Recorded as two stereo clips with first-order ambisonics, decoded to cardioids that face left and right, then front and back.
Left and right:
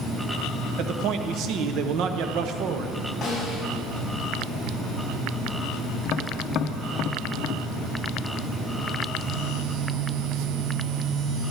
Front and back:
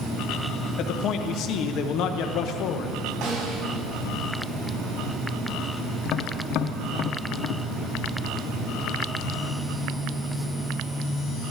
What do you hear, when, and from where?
0.8 s a man speaking: 45° right, 1.0 m
3.2 s a snare drum: 160° left, 5 m
6.0 s tapping: 40° left, 0.7 m